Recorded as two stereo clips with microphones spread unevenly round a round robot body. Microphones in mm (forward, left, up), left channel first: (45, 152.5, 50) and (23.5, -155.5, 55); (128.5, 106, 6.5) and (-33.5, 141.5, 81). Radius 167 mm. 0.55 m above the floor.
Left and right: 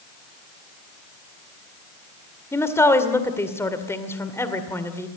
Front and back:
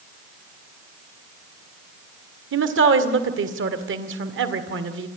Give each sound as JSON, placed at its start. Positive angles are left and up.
{"t": 2.5, "sound": "a woman speaking", "azimuth_deg": 165, "distance_m": 2.0}